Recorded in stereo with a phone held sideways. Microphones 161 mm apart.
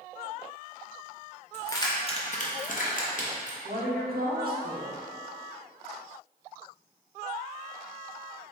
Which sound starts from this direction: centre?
Keys jangling, at 1.5 s.